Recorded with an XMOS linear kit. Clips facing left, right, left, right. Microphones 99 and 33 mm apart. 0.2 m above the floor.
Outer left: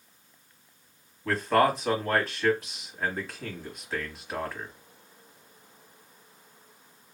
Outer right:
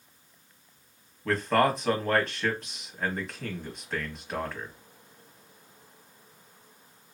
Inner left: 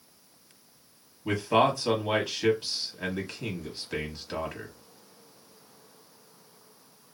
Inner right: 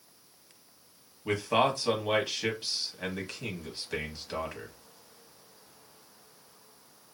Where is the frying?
No frying in this recording.